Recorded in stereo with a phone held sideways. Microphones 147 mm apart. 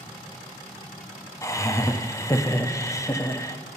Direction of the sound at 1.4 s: 20° left (ahead or behind).